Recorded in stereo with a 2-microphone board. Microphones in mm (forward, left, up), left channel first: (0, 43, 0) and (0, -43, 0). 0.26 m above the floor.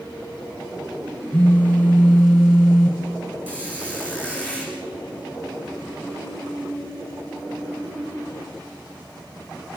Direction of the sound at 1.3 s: 15° left (ahead or behind).